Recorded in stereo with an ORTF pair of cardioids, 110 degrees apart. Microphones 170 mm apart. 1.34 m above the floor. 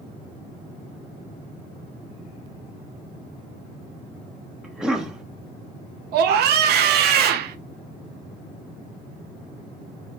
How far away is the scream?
About 0.7 m.